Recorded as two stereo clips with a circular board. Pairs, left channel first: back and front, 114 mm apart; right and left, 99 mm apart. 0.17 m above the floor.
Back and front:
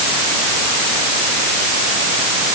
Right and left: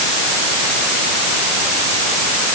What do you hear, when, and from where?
Only background noise.